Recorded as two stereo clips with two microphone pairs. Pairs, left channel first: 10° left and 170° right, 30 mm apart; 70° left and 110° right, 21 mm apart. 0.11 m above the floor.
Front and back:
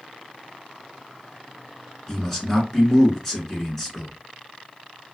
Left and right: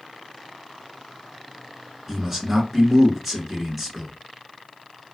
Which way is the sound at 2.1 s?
55° right.